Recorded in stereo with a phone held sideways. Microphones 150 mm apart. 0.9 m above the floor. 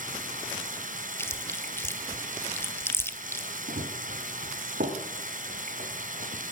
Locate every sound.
0.0 s running water: 60° right (ahead or behind), 2.5 m
1.2 s chewing: 15° left (ahead or behind), 1.5 m
3.7 s running footsteps: 80° right, 5 m; by 6.5 s 60° right (ahead or behind), 4.5 m